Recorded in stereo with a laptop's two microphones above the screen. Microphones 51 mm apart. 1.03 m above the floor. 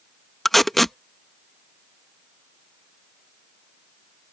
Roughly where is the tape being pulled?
Centre.